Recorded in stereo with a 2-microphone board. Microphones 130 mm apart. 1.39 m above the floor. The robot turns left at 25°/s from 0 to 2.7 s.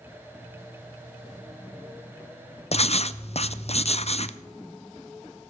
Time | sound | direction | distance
2.7 | writing | 50° left (ahead or behind) | 0.5 m